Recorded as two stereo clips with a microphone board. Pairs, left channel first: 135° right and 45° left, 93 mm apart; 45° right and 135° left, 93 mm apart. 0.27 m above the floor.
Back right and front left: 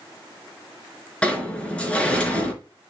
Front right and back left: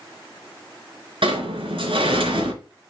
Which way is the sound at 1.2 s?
150° left.